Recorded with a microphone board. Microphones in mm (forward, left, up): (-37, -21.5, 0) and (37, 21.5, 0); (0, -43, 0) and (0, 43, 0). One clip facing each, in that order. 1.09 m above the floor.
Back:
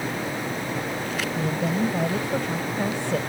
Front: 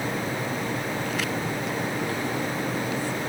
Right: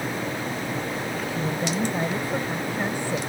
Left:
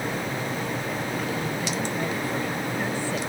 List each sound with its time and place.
1.4 s a woman speaking: 150° right; by 3.2 s 165° right